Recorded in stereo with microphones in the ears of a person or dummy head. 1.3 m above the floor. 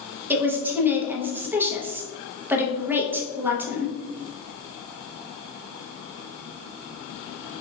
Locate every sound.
0.3 s a woman speaking: 10° right (ahead or behind), 0.8 m